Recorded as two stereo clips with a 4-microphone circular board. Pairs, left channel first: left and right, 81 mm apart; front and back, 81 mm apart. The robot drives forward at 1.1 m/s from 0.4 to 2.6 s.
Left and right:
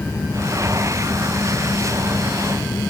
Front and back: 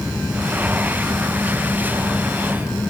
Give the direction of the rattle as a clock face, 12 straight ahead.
I don't hear a rattle.